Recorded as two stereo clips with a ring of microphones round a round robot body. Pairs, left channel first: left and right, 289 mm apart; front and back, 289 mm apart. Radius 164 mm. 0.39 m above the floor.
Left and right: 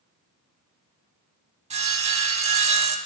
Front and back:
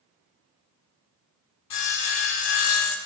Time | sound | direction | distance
1.7 | sawing | 20° right | 0.6 m